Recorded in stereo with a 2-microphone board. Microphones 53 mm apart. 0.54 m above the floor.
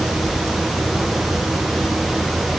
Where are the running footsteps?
No running footsteps in this recording.